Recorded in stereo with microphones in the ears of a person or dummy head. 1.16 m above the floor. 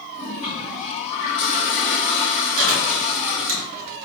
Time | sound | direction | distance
0.1 | a toilet flushing | 45° left (ahead or behind) | 1.2 m
2.6 | chewing | 75° right (ahead or behind) | 2 m